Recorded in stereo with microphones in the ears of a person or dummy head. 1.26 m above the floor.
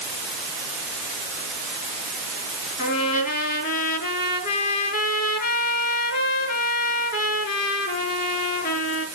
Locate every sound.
2.8 s a trumpet: 55° left (ahead or behind), 4.5 m